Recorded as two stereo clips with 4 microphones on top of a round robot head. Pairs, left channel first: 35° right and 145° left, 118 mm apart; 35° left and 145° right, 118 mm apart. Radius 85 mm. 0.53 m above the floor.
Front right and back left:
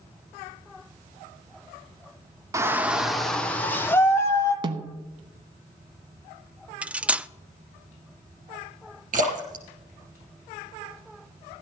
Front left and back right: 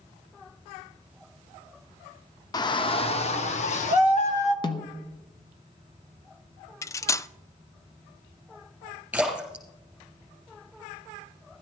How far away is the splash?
About 4 m.